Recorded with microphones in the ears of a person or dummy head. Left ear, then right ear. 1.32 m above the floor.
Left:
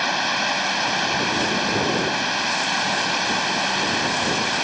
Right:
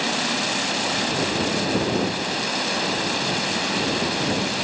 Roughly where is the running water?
Left.